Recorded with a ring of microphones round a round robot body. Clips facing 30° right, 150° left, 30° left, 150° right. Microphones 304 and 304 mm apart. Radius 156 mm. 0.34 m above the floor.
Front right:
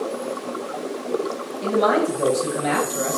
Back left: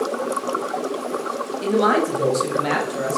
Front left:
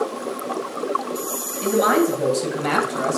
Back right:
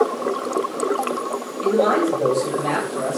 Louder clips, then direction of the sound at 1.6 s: Back left 1 dB, even; 90° left.